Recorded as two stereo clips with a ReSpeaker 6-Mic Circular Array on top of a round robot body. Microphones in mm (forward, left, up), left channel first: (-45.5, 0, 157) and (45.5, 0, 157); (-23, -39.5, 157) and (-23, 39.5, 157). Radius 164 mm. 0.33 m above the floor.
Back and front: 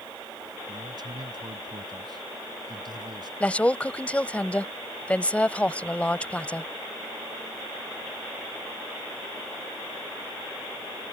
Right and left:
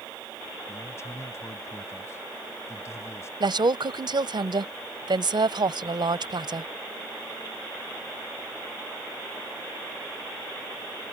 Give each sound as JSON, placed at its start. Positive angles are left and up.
{"t": 0.7, "sound": "a man speaking", "azimuth_deg": -40}
{"t": 3.4, "sound": "a woman speaking", "azimuth_deg": 105}